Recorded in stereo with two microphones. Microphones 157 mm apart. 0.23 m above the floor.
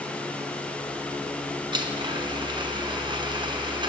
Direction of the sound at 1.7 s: 30° right (ahead or behind).